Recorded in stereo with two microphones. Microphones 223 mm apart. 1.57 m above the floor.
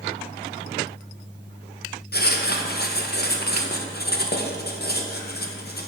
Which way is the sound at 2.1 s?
45° left (ahead or behind).